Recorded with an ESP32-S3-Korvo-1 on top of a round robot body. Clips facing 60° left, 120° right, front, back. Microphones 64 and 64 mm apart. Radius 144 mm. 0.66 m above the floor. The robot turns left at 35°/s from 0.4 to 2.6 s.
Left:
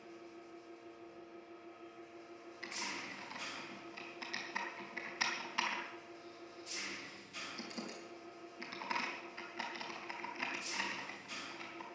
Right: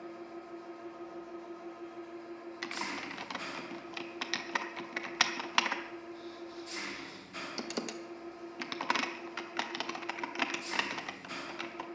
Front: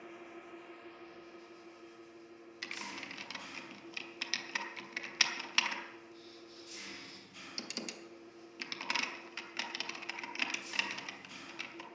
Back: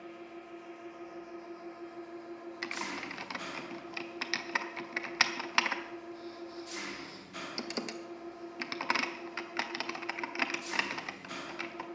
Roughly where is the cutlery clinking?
I don't hear cutlery clinking.